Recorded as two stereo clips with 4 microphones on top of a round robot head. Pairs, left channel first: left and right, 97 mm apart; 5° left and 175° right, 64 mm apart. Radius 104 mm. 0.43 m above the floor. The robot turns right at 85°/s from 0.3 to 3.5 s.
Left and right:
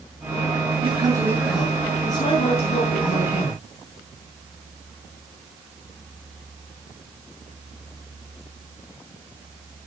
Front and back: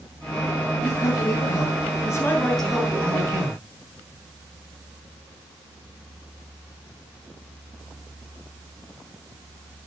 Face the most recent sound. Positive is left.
turn(degrees=165)